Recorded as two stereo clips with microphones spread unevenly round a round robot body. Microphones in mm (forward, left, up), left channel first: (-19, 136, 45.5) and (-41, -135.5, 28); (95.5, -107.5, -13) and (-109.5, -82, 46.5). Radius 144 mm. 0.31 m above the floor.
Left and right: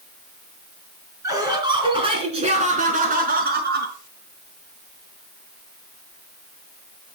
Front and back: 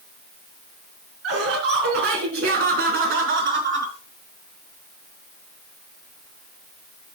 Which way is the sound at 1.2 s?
175° right.